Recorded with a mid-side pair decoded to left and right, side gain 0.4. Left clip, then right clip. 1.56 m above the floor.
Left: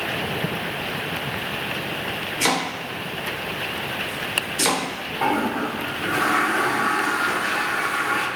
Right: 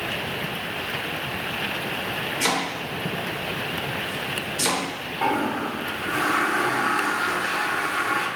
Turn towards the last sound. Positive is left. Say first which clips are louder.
# left 1 dB
turn(degrees=20)